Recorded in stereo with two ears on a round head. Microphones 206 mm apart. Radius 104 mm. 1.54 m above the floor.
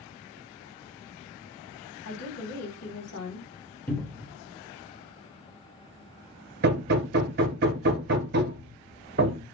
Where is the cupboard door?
10° left (ahead or behind), 0.7 m.